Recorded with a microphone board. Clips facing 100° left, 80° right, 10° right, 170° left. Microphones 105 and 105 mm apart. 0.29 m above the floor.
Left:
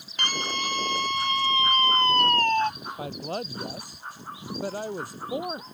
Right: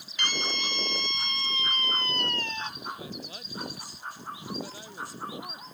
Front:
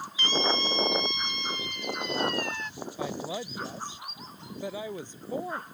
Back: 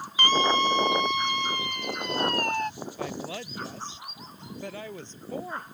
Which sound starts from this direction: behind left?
A scream, at 0.2 s.